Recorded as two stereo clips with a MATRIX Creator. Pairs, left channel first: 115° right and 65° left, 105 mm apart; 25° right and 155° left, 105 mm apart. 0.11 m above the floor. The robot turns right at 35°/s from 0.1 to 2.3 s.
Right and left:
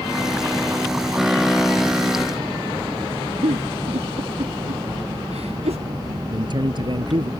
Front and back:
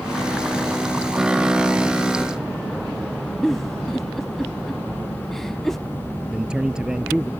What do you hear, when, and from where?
3.4 s a giggle: 65° left
6.3 s a man speaking: 80° left